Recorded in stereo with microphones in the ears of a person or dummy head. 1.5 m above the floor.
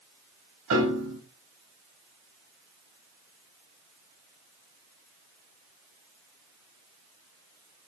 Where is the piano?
75° right (ahead or behind), 3.5 m.